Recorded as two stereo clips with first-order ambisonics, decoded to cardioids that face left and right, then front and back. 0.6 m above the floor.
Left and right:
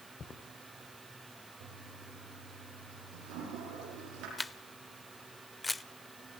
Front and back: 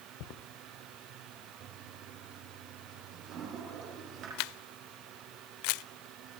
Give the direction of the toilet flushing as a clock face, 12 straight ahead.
4 o'clock.